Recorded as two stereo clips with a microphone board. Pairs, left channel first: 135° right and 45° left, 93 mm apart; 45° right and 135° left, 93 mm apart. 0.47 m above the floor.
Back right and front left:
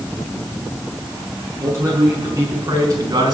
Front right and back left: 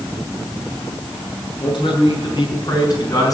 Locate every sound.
1.6 s a man speaking: 15° right, 6.5 m; by 3.3 s 5° left, 5 m